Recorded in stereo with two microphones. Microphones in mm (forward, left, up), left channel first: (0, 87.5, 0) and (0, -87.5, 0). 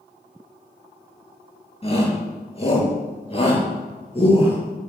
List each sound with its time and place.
1.8 s a shout: 35° left (ahead or behind), 8 m